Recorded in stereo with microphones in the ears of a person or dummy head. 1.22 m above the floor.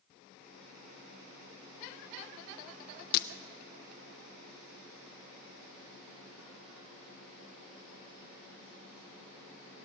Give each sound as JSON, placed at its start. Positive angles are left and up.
{"t": 3.1, "sound": "breaking glass", "side_deg": 55, "distance_m": 0.6}